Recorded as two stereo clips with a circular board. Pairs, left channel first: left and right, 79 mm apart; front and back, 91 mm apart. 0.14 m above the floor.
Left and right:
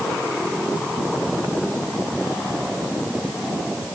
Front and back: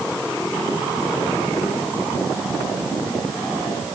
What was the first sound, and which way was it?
Only background noise.